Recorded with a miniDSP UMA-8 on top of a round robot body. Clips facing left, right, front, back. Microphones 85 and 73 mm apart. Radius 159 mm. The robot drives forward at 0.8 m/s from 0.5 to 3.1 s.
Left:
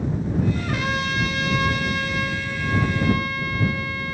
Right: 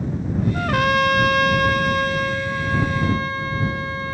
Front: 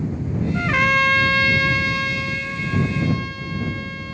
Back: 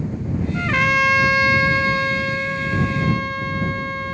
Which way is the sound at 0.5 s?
80° right.